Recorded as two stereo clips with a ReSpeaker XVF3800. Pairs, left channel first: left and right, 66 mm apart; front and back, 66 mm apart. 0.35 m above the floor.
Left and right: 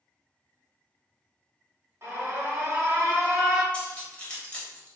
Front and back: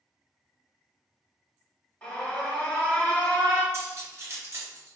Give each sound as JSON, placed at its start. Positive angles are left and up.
{"t": 2.0, "sound": "an alarm", "azimuth_deg": -65, "distance_m": 1.0}
{"t": 3.7, "sound": "cutlery clinking", "azimuth_deg": 155, "distance_m": 1.0}